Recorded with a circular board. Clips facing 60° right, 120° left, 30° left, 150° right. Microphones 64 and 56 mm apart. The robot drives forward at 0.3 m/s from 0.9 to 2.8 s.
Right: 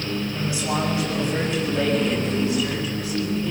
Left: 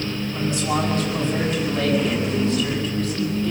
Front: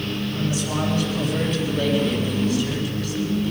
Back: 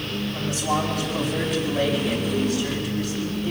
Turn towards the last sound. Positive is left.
turn(degrees=-140)